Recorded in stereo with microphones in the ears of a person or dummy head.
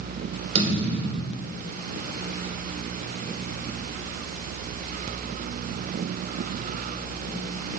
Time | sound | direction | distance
0.6 | a thud | 35° right (ahead or behind) | 3 m